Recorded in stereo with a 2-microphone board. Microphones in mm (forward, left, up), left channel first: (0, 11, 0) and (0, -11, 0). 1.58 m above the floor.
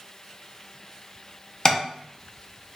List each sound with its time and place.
1.6 s tapping: 25° left (ahead or behind), 0.5 m